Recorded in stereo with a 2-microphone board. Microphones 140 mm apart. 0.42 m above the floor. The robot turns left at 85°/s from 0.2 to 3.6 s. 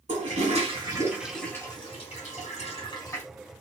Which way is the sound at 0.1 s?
55° right (ahead or behind).